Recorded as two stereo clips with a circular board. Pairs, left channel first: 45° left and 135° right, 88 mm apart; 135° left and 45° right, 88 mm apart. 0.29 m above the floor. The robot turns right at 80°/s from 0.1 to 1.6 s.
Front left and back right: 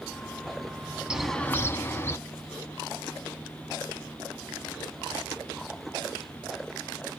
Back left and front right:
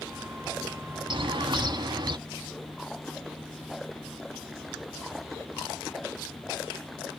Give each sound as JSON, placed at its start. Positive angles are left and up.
{"t": 1.1, "sound": "a bird", "azimuth_deg": -55, "distance_m": 0.5}